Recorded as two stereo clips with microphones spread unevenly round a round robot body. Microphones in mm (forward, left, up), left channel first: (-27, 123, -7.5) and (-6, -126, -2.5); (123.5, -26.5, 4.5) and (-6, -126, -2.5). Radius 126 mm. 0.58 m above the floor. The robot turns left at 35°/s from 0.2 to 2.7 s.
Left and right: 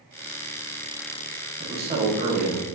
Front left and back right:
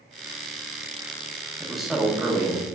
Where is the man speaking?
55° right, 0.6 m; by 2.6 s 90° right, 0.6 m.